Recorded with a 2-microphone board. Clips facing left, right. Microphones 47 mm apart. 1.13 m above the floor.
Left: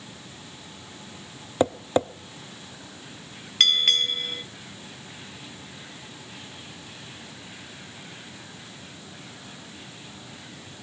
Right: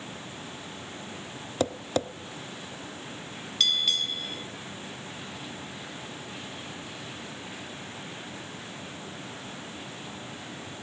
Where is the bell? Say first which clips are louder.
Left 5 dB; 55° left (ahead or behind), 0.8 m.